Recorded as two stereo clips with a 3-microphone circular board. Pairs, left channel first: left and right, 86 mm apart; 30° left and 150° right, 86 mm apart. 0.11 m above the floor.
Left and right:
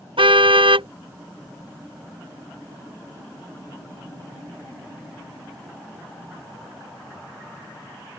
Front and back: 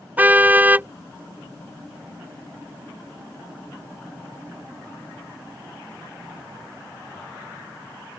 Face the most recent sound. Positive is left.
turn(degrees=-80)